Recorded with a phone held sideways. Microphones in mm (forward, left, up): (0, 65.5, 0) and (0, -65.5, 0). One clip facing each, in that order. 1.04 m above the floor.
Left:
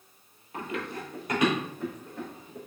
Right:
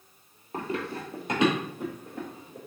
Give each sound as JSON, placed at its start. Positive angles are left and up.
{"t": 0.5, "sound": "running footsteps", "side_deg": -40, "distance_m": 1.3}